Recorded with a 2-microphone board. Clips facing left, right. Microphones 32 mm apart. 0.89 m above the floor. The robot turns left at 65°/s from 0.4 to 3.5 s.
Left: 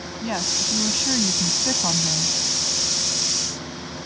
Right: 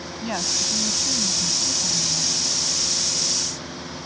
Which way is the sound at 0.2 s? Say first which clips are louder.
Left 1 dB; 175° left.